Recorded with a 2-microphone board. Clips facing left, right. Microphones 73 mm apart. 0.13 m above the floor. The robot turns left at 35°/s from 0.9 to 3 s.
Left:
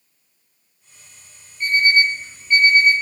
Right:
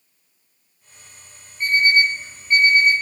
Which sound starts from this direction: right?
An alarm clock, at 1.6 s.